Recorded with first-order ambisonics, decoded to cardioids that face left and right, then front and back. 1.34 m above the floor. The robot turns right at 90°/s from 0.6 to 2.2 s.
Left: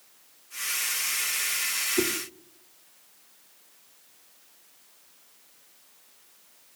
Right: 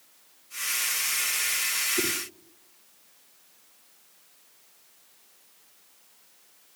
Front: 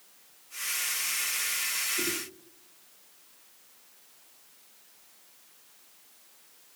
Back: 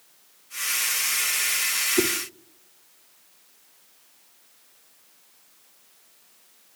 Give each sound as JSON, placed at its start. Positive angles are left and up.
{"t": 2.0, "sound": "a whoosh", "azimuth_deg": 165, "distance_m": 1.8}